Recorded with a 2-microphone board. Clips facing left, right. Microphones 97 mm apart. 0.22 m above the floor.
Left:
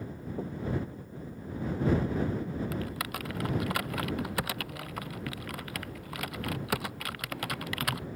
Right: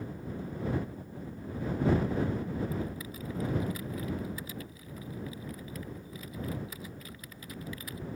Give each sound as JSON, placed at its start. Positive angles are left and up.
{"t": 0.4, "sound": "knocking", "side_deg": 45}
{"t": 2.7, "sound": "typing on a keyboard", "side_deg": 75}